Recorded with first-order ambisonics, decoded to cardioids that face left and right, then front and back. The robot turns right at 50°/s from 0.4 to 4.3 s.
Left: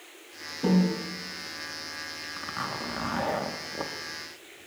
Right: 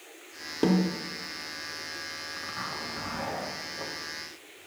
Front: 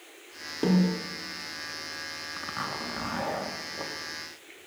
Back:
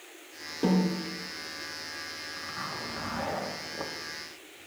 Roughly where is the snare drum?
Right.